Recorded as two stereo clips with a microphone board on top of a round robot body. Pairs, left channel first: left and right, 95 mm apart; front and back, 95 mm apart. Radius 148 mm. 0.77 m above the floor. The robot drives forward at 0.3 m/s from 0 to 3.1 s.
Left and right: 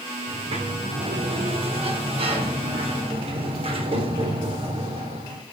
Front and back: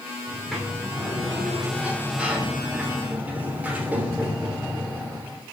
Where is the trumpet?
I don't hear a trumpet.